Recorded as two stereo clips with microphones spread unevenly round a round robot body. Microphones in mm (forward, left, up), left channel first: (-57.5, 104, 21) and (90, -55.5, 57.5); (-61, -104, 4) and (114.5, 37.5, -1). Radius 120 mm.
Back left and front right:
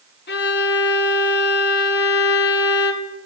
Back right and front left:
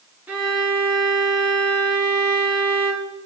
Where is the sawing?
No sawing in this recording.